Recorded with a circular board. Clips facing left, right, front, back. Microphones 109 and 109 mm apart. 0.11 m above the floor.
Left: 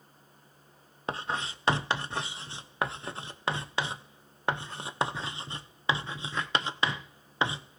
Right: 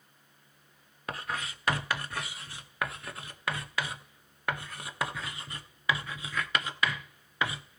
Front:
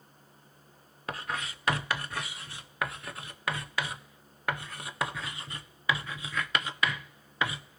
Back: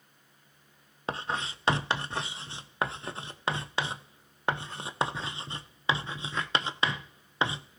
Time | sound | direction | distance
1.1 | writing | 135° left | 0.8 m